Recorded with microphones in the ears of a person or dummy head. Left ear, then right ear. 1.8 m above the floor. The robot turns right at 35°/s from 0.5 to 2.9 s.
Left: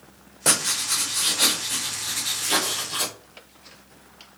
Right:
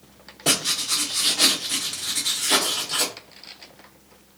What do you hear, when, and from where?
0.5 s writing: 150° left, 2.0 m; by 3.1 s 125° right, 2.0 m